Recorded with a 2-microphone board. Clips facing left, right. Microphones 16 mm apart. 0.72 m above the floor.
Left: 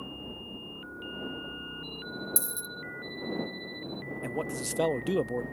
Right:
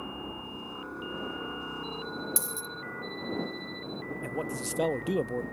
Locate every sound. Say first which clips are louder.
0.0 s a helicopter: right 2 dB; 80° right
2.4 s a dropped coin: right 1 dB; 15° right (ahead or behind)
4.2 s a man speaking: left 1 dB; 5° left (ahead or behind)